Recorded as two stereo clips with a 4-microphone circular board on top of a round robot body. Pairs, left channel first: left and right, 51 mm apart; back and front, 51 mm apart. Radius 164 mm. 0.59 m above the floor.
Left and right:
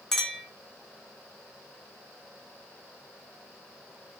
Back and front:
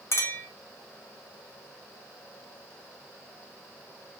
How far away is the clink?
About 0.8 m.